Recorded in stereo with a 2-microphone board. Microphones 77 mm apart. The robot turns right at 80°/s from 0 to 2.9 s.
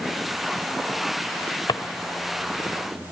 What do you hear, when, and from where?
1.7 s a drawer: 65° left (ahead or behind), 0.9 m; by 1.8 s 75° left (ahead or behind), 0.9 m